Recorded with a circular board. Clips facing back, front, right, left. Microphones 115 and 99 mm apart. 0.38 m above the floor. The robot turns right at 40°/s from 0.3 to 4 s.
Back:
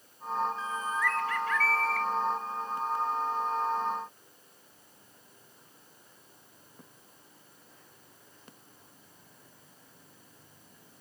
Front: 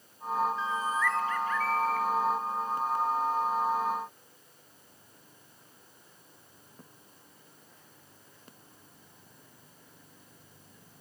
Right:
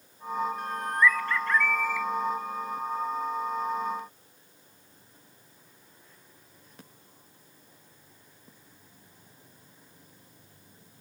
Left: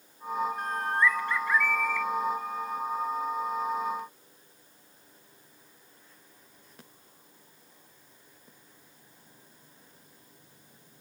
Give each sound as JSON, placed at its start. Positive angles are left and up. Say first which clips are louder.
{"t": 0.6, "sound": "a bird", "louder": "front 2 dB, right 3 dB", "azimuth_deg": 130, "distance_m": 0.6}